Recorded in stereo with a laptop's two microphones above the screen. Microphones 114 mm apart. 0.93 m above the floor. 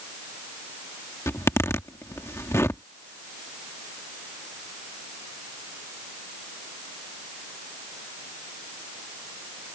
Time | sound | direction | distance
1.3 | a zipper | 25° left (ahead or behind) | ?